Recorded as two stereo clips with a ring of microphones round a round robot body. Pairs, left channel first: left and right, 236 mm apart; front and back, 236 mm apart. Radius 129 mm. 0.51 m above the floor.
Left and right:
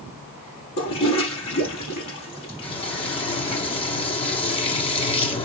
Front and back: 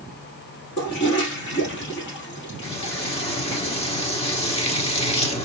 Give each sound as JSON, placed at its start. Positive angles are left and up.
{"t": 0.8, "sound": "a toilet flushing", "azimuth_deg": 50, "distance_m": 3.5}
{"t": 2.6, "sound": "frying", "azimuth_deg": 40, "distance_m": 1.5}